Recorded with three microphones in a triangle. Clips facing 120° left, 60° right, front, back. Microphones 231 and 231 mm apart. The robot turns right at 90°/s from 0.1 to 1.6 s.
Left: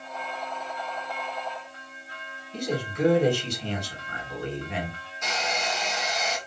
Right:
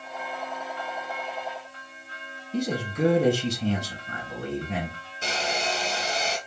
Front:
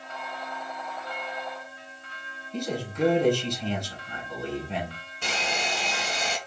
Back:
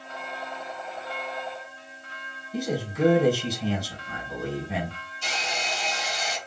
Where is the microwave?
I don't hear a microwave.